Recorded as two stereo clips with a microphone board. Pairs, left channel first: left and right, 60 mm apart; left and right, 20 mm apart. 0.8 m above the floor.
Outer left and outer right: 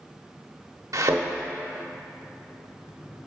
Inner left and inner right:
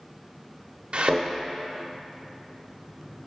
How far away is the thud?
About 0.8 m.